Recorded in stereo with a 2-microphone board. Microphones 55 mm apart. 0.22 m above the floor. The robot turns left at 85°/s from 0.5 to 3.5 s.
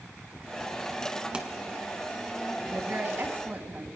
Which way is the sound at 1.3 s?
20° right (ahead or behind).